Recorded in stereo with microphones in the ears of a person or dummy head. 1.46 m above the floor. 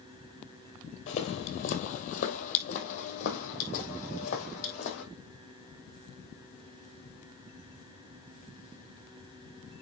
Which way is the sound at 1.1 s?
40° left (ahead or behind).